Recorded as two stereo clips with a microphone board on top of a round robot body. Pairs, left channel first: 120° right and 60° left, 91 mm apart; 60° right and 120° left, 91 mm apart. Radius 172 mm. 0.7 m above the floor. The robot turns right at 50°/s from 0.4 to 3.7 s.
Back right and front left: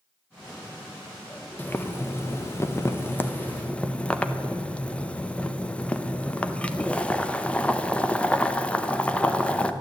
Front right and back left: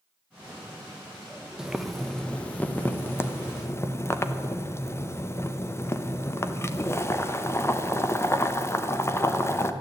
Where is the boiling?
165° right, 1.1 m; by 9.7 s 60° right, 1.1 m.